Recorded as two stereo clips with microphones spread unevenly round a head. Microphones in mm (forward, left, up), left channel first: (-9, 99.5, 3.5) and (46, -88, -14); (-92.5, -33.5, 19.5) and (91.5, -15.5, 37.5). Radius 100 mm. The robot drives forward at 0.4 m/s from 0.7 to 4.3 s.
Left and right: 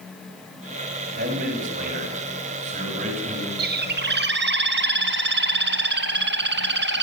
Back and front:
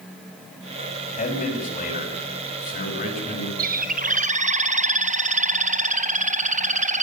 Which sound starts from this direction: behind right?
A man speaking, at 1.2 s.